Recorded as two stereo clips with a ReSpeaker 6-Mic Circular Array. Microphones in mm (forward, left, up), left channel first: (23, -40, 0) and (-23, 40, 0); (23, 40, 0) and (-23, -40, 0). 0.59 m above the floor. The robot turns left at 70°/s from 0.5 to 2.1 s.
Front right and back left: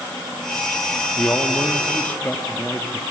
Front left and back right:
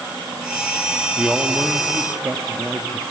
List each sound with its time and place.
1.1 s a man speaking: 35° right, 0.6 m; by 3.0 s 100° right, 0.6 m